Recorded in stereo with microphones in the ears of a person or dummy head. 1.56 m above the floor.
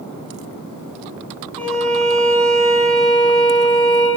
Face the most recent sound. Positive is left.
turn(degrees=5)  # may be behind; listen again after turning